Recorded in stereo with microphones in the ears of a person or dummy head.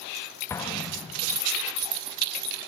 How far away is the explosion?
About 0.6 m.